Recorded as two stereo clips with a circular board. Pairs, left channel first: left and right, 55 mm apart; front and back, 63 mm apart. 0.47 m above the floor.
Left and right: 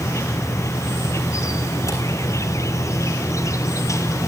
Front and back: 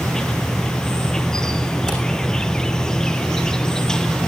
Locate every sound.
0.0 s an insect: 80° left, 1.2 m
1.9 s a camera shutter: 80° left, 9.5 m